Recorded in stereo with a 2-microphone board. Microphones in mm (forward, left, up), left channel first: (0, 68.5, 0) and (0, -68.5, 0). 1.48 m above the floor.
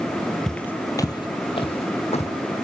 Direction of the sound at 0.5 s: 5° left (ahead or behind).